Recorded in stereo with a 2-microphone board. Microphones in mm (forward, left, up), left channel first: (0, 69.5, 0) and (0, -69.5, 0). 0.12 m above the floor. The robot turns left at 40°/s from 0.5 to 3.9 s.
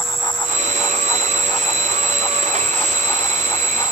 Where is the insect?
105° right, 8 m; by 3.9 s 120° left, 8 m.